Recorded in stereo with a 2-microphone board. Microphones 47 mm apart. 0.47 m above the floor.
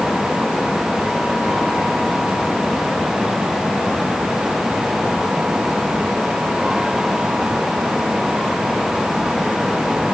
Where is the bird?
No bird in this recording.